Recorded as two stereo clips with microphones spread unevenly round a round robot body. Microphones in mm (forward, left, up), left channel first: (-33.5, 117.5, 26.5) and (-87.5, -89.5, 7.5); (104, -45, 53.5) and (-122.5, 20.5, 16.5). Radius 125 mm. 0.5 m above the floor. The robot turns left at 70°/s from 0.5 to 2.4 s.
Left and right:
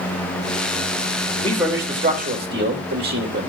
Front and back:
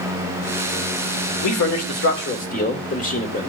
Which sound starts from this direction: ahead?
A man speaking, at 1.4 s.